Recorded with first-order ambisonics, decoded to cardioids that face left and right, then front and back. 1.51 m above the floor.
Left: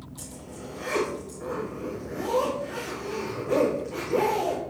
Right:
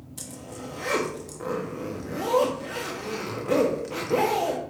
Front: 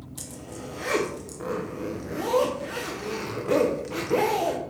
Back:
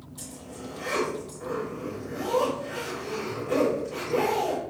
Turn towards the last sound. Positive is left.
turn(degrees=-40)